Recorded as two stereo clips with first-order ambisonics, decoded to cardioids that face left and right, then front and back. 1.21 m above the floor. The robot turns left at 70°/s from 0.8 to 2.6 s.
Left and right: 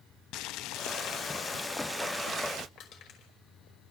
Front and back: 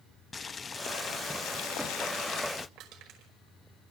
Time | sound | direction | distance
0.3 | boiling | 70° left | 0.5 m
2.8 | crushing | 135° left | 5 m